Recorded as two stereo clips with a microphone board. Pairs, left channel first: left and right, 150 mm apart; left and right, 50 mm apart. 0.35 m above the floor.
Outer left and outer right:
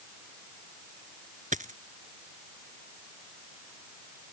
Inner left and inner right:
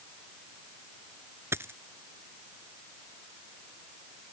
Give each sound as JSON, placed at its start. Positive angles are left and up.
{"t": 1.5, "sound": "a dropped coin", "side_deg": -60}